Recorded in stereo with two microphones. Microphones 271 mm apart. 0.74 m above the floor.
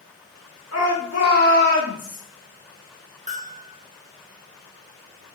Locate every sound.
0.7 s a shout: 70° left (ahead or behind), 2.0 m; by 2.2 s 45° left (ahead or behind), 0.8 m
3.3 s a bell: 25° right (ahead or behind), 1.1 m